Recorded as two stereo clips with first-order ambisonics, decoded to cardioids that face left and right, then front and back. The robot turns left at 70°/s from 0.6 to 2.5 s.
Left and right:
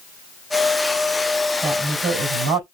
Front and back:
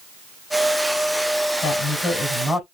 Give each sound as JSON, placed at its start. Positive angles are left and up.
{"t": 1.6, "sound": "a woman speaking", "azimuth_deg": -35, "distance_m": 2.5}